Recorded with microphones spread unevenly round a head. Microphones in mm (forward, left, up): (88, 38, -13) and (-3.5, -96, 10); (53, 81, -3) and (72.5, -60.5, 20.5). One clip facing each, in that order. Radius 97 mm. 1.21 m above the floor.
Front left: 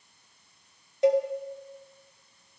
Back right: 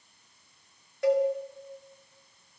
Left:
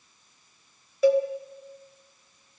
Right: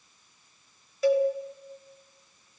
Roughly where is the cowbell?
Behind left.